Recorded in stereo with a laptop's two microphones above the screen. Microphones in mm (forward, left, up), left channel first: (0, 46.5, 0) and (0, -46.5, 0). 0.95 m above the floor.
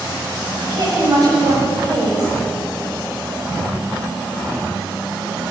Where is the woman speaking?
45° right (ahead or behind), 6.5 m.